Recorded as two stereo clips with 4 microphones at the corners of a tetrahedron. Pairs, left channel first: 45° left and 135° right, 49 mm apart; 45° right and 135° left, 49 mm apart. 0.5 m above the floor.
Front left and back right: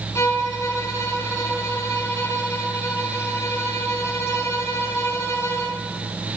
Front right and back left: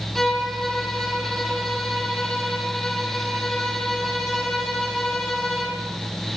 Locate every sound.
0.1 s a violin: 40° left, 6.5 m